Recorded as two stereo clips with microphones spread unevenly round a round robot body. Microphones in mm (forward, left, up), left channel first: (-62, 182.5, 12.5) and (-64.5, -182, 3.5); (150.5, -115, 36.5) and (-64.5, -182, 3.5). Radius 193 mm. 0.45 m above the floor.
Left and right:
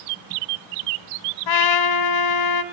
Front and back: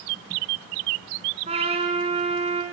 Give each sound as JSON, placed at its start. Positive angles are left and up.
{"t": 1.5, "sound": "a trumpet", "azimuth_deg": 120, "distance_m": 1.1}